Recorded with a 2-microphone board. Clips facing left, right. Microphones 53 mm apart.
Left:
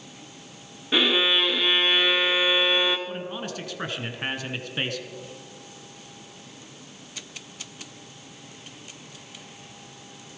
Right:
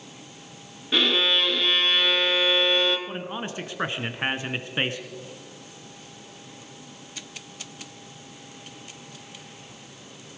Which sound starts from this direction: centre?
A violin, at 0.9 s.